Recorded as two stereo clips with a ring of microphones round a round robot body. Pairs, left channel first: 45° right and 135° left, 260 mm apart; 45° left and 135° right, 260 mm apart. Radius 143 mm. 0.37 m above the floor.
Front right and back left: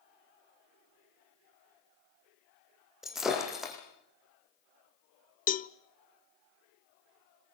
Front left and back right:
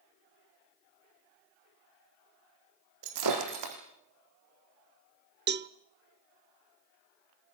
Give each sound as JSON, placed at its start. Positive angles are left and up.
{"t": 3.0, "sound": "breaking glass", "azimuth_deg": -135, "distance_m": 4.5}
{"t": 5.5, "sound": "a cowbell", "azimuth_deg": -95, "distance_m": 0.8}